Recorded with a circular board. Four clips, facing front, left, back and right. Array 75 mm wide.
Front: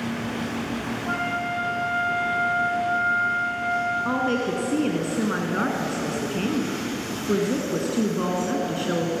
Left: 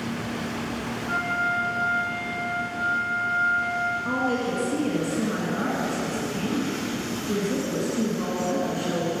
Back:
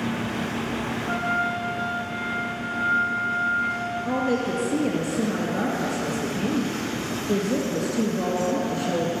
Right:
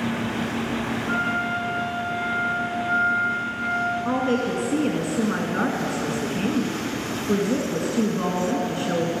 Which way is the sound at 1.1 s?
15° right.